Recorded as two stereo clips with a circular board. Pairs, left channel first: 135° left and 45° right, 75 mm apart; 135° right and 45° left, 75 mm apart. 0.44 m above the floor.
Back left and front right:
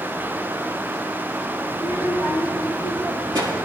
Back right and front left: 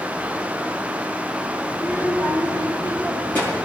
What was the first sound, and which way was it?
A child speaking, 155° left.